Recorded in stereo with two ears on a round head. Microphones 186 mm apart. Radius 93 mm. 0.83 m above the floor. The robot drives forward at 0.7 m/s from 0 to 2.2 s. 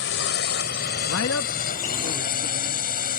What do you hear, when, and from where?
0.0 s a drone: 60° left (ahead or behind); by 3.2 s 45° left (ahead or behind)
1.1 s a man speaking: 65° left (ahead or behind); by 2.9 s 45° left (ahead or behind)